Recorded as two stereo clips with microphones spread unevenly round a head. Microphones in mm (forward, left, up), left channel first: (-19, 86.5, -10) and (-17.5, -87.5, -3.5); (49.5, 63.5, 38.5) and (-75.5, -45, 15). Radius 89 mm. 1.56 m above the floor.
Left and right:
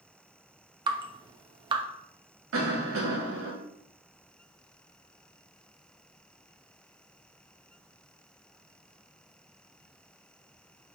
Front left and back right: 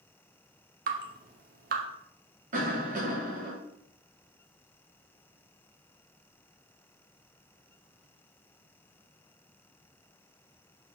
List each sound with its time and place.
0.9 s dripping: 130° right, 0.9 m
2.5 s a cough: 95° right, 2.5 m